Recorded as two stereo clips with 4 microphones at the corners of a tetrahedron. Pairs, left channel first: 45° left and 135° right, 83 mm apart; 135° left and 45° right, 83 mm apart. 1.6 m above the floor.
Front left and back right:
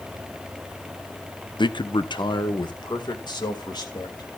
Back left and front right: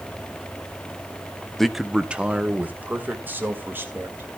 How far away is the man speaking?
About 0.7 m.